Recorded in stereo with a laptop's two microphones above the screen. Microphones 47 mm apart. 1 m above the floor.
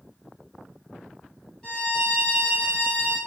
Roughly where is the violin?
Centre.